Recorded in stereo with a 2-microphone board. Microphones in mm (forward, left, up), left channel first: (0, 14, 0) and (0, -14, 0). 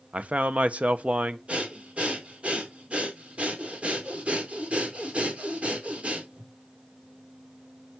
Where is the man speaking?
50° right (ahead or behind), 1.1 m.